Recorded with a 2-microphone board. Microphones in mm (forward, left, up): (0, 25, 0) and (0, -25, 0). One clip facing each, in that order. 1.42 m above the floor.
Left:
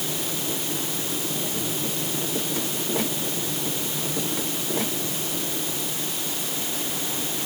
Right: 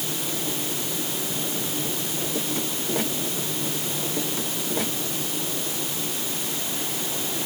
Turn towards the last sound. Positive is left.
No sound to turn to.